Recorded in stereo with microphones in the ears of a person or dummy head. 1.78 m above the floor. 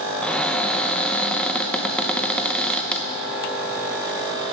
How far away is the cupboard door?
About 0.5 m.